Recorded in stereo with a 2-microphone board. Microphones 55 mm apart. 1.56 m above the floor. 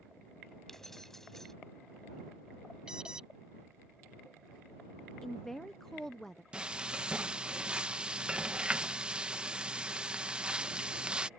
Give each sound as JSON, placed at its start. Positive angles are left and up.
{"t": 0.7, "sound": "keys jangling", "side_deg": 5}
{"t": 2.9, "sound": "an alarm", "side_deg": -15}
{"t": 5.2, "sound": "a woman speaking", "side_deg": 5}
{"t": 6.5, "sound": "frying", "side_deg": -20}